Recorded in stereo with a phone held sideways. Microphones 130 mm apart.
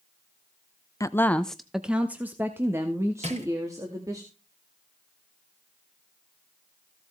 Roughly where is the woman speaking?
Left.